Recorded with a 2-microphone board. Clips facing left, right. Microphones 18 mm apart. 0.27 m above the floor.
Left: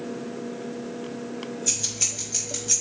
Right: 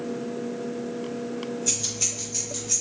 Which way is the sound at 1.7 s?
5° left (ahead or behind).